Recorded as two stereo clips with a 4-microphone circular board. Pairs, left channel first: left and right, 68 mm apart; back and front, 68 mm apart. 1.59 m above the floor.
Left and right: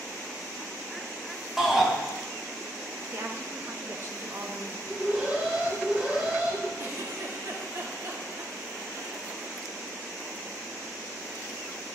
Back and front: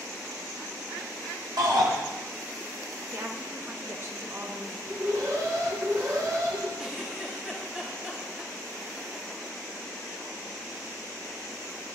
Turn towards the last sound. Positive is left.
turn(degrees=-75)